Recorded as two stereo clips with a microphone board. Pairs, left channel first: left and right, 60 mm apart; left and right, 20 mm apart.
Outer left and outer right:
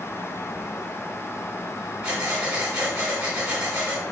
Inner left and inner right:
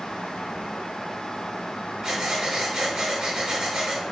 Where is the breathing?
20° right (ahead or behind), 1.4 m.